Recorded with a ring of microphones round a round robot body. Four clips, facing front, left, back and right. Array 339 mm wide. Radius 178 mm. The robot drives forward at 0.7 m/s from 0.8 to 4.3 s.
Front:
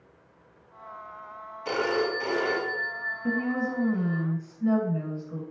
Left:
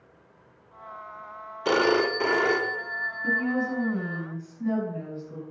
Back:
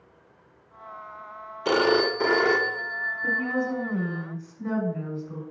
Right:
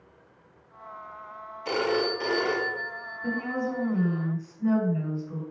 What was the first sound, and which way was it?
A phone ringing, 135° left.